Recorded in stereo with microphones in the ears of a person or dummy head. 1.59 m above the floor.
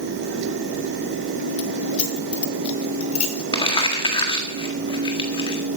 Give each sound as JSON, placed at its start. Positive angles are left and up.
{"t": 1.6, "sound": "keys jangling", "side_deg": 40, "distance_m": 1.1}
{"t": 3.5, "sound": "crumpling", "side_deg": 25, "distance_m": 1.8}